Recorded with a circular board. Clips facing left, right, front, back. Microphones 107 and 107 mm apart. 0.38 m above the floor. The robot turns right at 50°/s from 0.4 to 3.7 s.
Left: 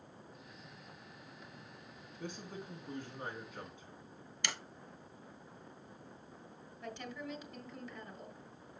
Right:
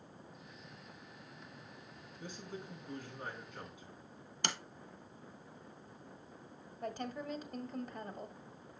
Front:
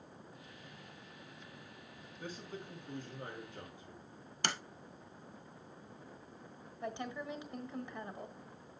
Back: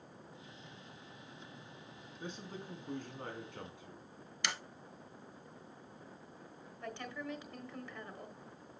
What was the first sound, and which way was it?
A man speaking, 110° left.